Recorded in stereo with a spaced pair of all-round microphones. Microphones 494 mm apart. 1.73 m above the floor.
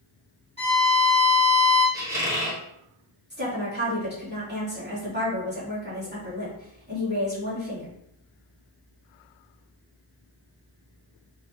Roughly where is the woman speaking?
Right.